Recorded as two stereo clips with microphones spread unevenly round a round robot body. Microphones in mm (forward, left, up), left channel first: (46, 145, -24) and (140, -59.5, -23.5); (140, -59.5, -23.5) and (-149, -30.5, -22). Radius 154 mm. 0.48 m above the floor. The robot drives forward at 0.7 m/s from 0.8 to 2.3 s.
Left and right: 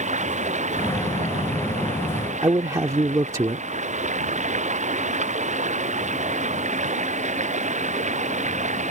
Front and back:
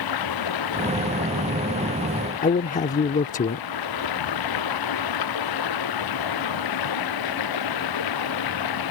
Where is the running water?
5° right.